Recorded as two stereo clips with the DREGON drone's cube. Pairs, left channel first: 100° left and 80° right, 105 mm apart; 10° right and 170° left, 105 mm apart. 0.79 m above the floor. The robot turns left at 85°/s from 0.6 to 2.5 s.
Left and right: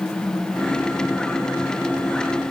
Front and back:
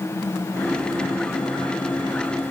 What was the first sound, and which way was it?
Only background noise.